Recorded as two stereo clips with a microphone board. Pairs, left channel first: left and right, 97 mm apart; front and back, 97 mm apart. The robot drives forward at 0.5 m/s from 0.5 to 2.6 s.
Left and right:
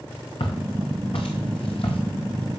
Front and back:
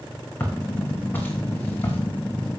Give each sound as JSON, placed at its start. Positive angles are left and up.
{"t": 0.4, "sound": "footsteps", "azimuth_deg": 70, "distance_m": 4.5}